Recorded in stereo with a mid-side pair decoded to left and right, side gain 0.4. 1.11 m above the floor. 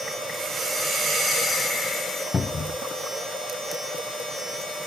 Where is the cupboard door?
40° left, 0.6 m.